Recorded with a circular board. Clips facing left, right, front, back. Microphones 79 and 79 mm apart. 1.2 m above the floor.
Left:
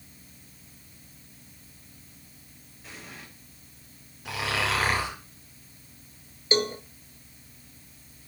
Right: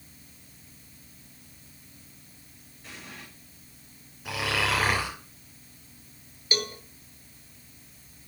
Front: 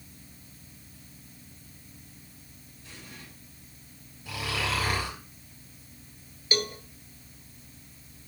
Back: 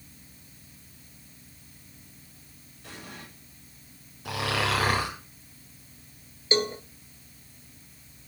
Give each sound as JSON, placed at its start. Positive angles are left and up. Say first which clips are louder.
{"t": 2.8, "sound": "an explosion", "louder": "even, back 5 dB", "azimuth_deg": 180, "distance_m": 6.5}
{"t": 4.2, "sound": "snoring", "louder": "right 1 dB, back 4 dB", "azimuth_deg": 180, "distance_m": 7.5}
{"t": 6.5, "sound": "a cowbell", "louder": "left 6 dB, back 5 dB", "azimuth_deg": 135, "distance_m": 1.1}